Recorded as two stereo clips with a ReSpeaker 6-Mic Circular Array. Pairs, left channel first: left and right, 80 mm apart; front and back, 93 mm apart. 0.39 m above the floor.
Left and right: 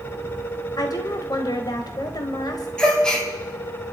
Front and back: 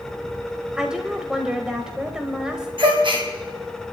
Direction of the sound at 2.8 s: 170° left.